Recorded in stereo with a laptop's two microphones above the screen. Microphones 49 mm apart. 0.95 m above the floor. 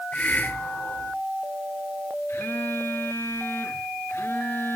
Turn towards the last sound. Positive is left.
turn(degrees=55)  # may be behind; listen again after turning